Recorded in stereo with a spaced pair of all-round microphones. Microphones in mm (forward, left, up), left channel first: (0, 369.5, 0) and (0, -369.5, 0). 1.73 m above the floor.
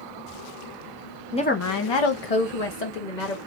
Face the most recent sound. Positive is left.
turn(degrees=75)  # may be behind; listen again after turning